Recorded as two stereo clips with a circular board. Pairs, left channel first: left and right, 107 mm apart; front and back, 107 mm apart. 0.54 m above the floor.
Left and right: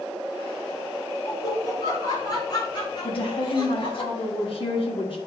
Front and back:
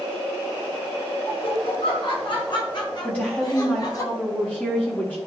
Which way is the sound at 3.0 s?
75° left.